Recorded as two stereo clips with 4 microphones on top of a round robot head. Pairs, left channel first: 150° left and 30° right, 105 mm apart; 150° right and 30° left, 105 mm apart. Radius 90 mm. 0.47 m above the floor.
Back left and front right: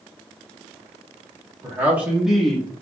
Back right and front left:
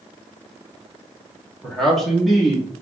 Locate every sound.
1.6 s a man speaking: 70° right, 1.3 m; by 2.8 s 105° left, 1.2 m